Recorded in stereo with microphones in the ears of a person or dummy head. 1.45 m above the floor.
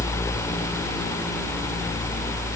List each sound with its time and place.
Only background noise.